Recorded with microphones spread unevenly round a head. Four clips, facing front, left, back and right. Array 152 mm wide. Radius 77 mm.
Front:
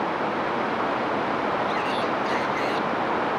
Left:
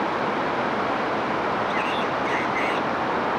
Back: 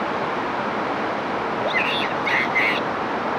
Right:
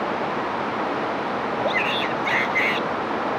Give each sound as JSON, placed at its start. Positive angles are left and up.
{"t": 1.6, "sound": "a shout", "azimuth_deg": -115}